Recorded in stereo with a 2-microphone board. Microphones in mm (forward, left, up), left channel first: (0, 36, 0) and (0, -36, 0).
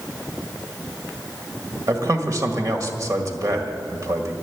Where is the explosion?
I don't hear an explosion.